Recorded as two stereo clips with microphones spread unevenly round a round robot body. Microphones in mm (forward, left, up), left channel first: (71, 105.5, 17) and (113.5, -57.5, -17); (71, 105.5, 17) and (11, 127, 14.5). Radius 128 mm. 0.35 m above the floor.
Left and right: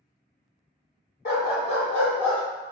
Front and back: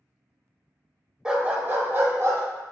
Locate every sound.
1.2 s a dog barking: 85° left, 0.8 m; by 2.4 s 125° left, 1.4 m